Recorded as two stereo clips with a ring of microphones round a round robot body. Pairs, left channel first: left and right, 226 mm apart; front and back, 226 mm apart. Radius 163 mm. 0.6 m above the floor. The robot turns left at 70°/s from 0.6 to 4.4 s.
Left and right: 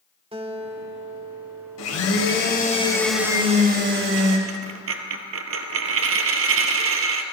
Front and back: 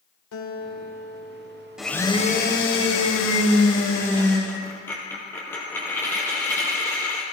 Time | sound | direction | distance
0.3 | a guitar | 25° right | 2 m
1.8 | a blender | 95° left | 2 m
4.5 | a dropped coin | 80° right | 1.1 m